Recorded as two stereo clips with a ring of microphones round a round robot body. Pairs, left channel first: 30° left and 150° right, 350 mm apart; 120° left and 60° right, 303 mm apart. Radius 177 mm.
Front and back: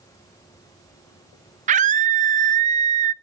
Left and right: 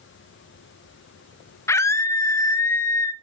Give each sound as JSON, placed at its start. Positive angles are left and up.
{"t": 1.7, "sound": "a scream", "azimuth_deg": -175, "distance_m": 0.6}